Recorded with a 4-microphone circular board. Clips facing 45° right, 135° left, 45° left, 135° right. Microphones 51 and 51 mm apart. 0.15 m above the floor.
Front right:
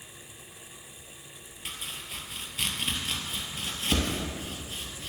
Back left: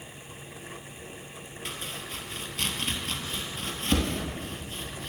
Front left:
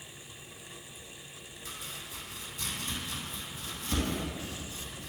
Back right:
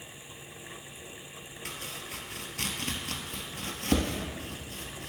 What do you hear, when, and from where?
1.6 s chopping: 130° right, 0.9 m